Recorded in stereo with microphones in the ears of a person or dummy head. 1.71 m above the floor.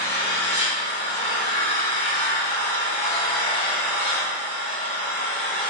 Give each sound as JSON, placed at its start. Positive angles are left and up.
{"t": 0.0, "sound": "an engine running", "side_deg": 35, "distance_m": 2.0}